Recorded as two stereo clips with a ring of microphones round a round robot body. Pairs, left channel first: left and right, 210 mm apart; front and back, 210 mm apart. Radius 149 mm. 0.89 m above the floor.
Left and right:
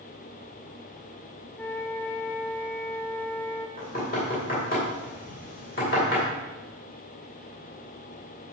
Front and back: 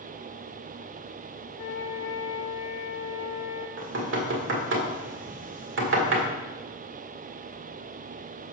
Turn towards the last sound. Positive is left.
turn(degrees=150)